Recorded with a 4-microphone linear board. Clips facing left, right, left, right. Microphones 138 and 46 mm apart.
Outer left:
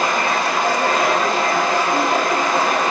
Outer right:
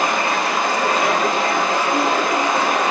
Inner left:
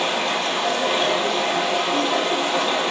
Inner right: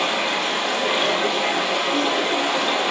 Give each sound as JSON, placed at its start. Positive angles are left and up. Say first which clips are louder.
{"t": 0.0, "sound": "running water", "louder": "even, even", "side_deg": -20, "distance_m": 1.8}